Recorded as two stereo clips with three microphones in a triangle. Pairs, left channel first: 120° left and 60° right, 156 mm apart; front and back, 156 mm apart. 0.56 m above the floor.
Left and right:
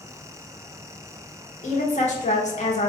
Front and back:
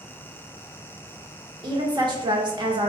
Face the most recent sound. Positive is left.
turn(degrees=130)